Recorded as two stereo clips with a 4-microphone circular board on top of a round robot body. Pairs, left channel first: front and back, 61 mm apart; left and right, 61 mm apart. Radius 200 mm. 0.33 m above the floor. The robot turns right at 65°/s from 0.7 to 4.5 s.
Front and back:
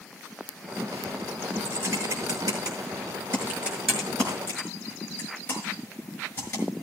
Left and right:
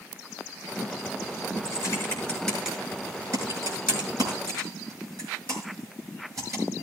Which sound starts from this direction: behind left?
Typing on a keyboard, at 1.6 s.